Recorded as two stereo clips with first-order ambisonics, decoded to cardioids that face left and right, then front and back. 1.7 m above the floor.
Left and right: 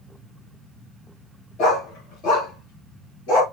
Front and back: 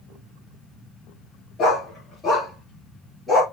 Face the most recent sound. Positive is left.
turn(degrees=85)